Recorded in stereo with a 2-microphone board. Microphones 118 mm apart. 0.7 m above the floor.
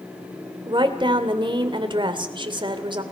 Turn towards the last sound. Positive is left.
turn(degrees=-45)  # may be behind; listen again after turning